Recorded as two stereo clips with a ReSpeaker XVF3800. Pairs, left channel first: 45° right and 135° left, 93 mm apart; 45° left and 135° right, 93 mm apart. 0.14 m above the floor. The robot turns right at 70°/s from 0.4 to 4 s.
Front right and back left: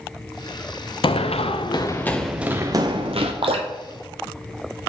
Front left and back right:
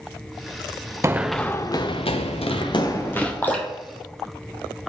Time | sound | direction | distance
1.0 | running footsteps | 75° right | 0.6 m
3.4 | dripping | 115° left | 1.1 m